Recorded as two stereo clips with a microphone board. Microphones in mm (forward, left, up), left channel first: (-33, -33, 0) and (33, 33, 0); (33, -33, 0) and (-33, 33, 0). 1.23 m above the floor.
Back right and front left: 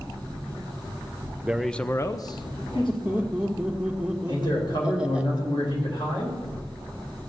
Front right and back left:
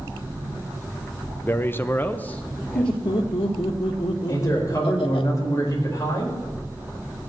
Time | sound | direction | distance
1.4 | a man speaking | 5° right | 0.6 m
2.8 | laughter | 35° right | 1.4 m
4.3 | a man speaking | 100° right | 5 m